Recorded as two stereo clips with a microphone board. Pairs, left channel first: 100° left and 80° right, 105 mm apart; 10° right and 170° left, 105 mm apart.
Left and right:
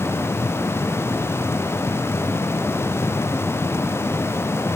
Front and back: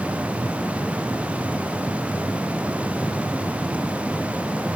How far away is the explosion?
I don't hear an explosion.